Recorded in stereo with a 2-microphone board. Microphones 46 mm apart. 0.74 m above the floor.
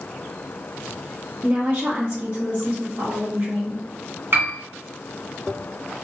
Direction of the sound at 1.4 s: 35° right (ahead or behind).